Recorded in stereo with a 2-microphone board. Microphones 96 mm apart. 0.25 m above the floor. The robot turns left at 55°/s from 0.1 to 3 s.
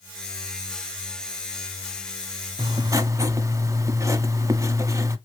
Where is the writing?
50° right (ahead or behind), 0.7 m; by 5.2 s 35° right (ahead or behind), 0.7 m.